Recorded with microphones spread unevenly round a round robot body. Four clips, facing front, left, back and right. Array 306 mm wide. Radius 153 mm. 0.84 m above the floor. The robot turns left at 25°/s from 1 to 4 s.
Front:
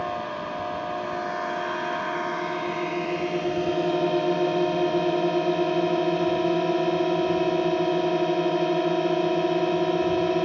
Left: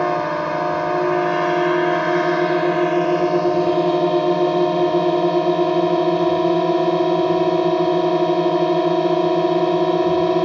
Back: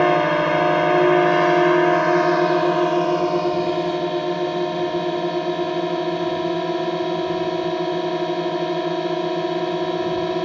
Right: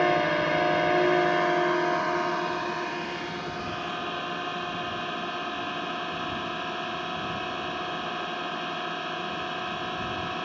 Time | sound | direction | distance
0.0 | a drone | 165° left | ?